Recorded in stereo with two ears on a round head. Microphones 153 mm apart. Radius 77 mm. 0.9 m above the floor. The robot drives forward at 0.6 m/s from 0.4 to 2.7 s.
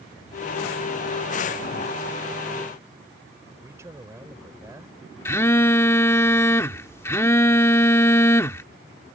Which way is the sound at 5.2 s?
15° left (ahead or behind).